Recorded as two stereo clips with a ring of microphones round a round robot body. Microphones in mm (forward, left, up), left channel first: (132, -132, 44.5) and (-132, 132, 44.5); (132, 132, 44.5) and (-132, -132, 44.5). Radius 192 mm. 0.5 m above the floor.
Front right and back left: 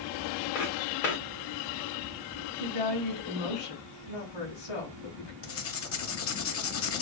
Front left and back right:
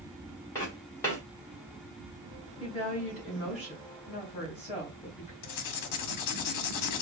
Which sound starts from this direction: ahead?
Writing, at 5.4 s.